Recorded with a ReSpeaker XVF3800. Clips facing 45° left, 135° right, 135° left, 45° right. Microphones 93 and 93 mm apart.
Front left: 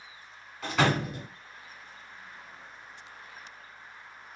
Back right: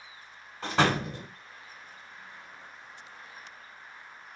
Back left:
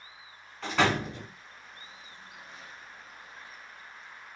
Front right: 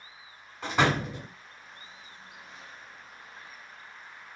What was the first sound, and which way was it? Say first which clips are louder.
A door slam: even, front right 1 dB; 105° right.